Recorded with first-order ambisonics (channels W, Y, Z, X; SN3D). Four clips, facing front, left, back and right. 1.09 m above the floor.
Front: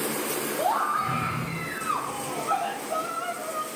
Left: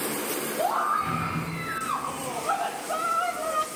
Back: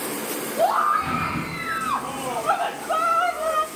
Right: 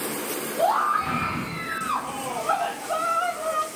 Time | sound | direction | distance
0.6 | a scream | 170° right | 2.5 m